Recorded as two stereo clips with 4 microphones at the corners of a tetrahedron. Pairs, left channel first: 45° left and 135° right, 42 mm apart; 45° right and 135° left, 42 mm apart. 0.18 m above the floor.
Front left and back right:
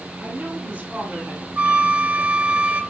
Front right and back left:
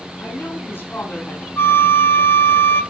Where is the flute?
80° right, 0.7 m.